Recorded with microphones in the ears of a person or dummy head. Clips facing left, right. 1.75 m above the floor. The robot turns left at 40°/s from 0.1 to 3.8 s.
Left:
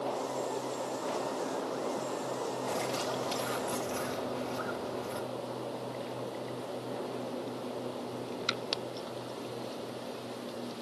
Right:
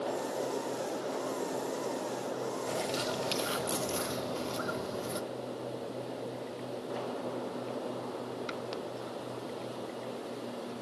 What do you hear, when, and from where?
2.7 s a bird: 5° right, 1.2 m; by 5.2 s 50° right, 1.2 m